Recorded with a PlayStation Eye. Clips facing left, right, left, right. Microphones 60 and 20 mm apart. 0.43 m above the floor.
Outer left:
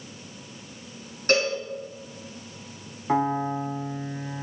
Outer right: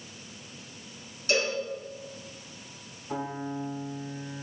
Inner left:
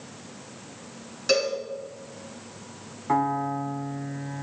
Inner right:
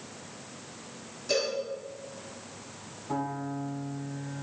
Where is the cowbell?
50° left (ahead or behind), 4.5 m.